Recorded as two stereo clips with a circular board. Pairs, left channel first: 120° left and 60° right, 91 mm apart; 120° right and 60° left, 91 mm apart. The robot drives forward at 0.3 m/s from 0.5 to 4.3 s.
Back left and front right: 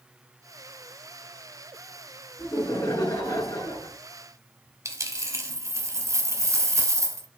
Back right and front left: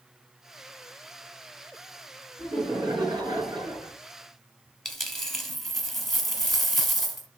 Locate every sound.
2.4 s laughter: 80° left, 3 m; by 3.9 s 90° left, 3 m
4.8 s a dropped coin: 35° right, 0.7 m